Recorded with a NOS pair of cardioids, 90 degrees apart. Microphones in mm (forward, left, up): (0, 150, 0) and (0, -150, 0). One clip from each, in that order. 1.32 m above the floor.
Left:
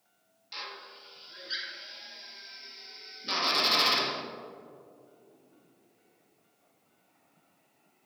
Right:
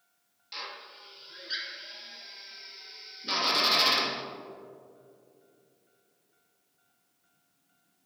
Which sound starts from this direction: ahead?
A drill, at 0.5 s.